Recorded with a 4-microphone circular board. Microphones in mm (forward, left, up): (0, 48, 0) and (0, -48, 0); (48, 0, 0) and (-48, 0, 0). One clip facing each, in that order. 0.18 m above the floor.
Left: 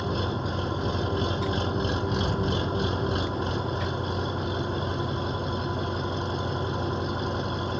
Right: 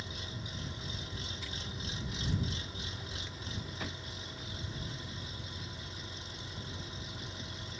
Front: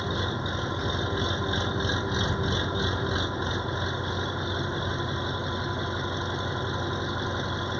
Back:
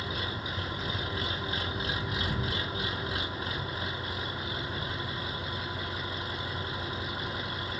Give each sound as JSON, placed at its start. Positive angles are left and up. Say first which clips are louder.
{"t": 0.0, "sound": "an engine running", "louder": "left 17 dB, front 6 dB", "azimuth_deg": 65}